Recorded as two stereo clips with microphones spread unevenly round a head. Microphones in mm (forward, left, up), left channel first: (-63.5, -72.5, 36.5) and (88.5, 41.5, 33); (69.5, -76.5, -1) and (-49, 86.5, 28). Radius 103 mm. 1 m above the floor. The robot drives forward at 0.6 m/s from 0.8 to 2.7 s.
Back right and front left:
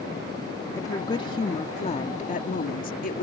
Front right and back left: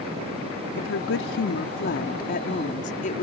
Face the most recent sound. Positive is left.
turn(degrees=-100)